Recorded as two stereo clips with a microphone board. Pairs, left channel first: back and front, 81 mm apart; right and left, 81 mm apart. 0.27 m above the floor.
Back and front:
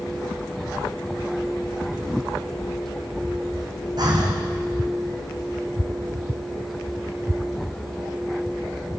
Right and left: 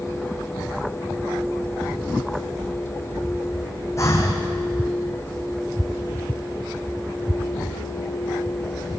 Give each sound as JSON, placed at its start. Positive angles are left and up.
{"t": 4.0, "sound": "breathing", "azimuth_deg": -35, "distance_m": 4.0}